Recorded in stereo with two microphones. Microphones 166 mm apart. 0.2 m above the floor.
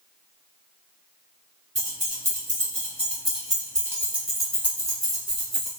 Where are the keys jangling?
55° right (ahead or behind), 1.7 m; by 5.7 s 40° left (ahead or behind), 1.1 m.